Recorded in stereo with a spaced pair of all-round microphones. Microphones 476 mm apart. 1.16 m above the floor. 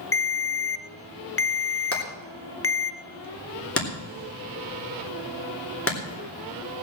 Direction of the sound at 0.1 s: 30° left (ahead or behind).